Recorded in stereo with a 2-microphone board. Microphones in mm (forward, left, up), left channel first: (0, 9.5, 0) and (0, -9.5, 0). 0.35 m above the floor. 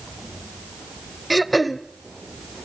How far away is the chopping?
No chopping in this recording.